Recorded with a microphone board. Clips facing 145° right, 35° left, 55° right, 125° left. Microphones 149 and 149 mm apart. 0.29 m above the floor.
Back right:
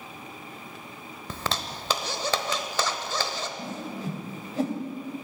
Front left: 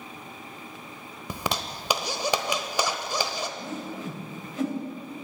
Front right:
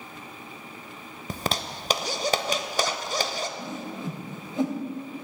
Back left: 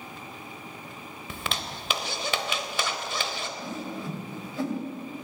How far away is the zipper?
About 0.8 m.